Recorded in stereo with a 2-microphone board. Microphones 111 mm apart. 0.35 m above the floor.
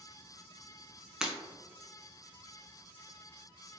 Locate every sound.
1.2 s breaking glass: 5° right (ahead or behind), 0.6 m